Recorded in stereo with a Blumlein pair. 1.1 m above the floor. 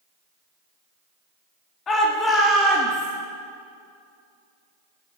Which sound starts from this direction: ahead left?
A shout, at 1.9 s.